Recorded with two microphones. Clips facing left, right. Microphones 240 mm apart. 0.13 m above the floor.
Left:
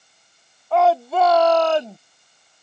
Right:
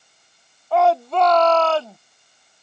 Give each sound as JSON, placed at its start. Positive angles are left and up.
{"t": 0.7, "sound": "a shout", "side_deg": 0}